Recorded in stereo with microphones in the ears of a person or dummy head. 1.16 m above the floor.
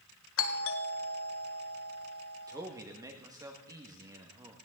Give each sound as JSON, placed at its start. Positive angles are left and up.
{"t": 0.4, "sound": "a doorbell", "side_deg": 60, "distance_m": 1.6}
{"t": 2.5, "sound": "a man speaking", "side_deg": -20, "distance_m": 1.8}